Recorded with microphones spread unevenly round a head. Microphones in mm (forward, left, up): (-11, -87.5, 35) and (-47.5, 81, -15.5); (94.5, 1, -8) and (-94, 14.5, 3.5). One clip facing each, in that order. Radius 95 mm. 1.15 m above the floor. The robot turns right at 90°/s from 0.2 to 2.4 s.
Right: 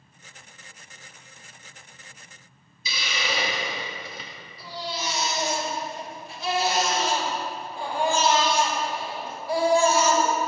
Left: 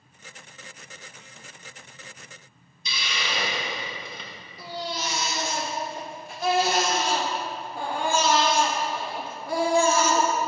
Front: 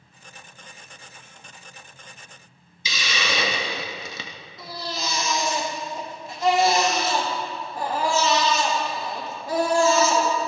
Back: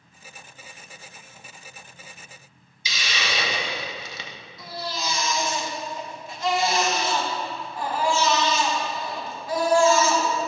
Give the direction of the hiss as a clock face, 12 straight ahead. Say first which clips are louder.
Right 2 dB, front 3 dB; 12 o'clock.